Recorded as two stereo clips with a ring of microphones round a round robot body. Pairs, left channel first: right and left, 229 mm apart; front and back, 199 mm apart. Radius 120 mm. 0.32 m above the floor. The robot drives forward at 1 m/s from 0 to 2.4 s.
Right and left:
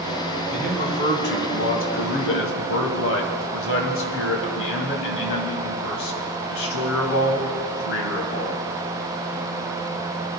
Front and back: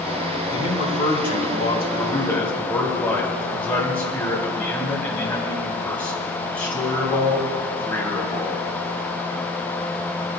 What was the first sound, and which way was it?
A man speaking, 40° right.